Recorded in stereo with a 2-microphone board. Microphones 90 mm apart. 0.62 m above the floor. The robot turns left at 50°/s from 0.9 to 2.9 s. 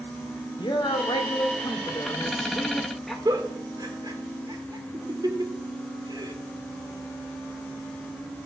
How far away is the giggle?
About 2 m.